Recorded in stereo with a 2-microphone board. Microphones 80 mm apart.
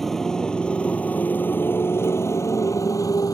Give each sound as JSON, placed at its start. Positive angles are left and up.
{"t": 0.0, "sound": "a motorcycle", "side_deg": 5}